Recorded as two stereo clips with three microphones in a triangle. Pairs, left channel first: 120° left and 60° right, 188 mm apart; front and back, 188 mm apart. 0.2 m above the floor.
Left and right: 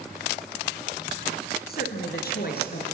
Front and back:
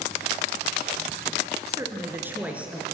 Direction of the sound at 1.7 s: 110° left.